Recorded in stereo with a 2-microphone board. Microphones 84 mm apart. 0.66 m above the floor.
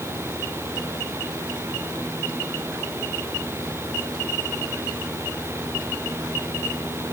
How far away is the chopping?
I don't hear chopping.